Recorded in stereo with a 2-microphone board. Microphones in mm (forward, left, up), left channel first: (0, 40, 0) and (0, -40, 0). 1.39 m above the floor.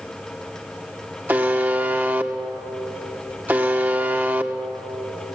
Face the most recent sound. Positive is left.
turn(degrees=-25)  # may be behind; listen again after turning